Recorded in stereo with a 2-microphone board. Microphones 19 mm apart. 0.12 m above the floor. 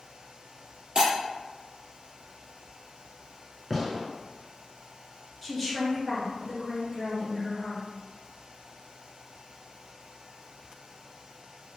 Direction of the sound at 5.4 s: 5° right (ahead or behind).